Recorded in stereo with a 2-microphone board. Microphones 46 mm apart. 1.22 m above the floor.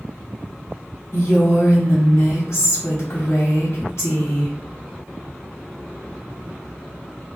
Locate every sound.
1.1 s a woman speaking: 75° left (ahead or behind), 2 m